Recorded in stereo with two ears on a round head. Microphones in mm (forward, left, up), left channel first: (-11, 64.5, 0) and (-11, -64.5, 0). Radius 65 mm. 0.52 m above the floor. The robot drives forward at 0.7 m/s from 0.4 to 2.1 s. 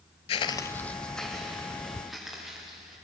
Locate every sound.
0.3 s footsteps: 40° left (ahead or behind), 0.6 m; by 2.9 s centre (ahead or behind), 5 m